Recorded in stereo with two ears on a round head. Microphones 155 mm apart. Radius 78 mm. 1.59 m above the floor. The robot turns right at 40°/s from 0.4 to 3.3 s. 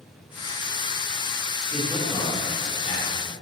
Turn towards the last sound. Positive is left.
turn(degrees=60)  # may be behind; listen again after turning